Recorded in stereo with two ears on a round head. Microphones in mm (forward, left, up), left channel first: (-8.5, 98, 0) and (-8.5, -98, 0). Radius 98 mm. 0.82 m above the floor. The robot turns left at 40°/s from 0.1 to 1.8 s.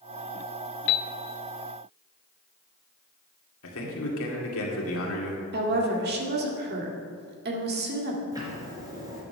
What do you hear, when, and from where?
0.9 s a piano: 50° left (ahead or behind), 0.6 m; by 1.1 s 45° left (ahead or behind), 0.6 m
3.6 s a man speaking: 75° left (ahead or behind), 2 m
5.5 s a woman speaking: 50° right (ahead or behind), 1.9 m
8.3 s ticking: 15° right (ahead or behind), 3.5 m